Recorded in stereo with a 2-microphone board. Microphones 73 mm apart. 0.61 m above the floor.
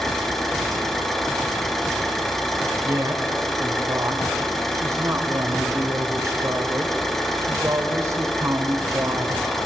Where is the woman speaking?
50° right (ahead or behind), 2 m.